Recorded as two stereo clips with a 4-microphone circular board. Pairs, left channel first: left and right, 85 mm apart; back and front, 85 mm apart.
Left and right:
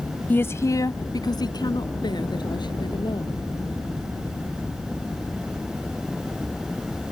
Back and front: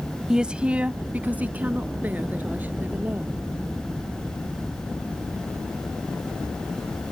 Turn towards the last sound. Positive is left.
turn(degrees=70)